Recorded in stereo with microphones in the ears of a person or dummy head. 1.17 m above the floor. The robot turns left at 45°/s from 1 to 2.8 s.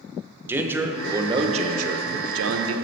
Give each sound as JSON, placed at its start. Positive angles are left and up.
{"t": 0.5, "sound": "a man speaking", "azimuth_deg": -15, "distance_m": 0.6}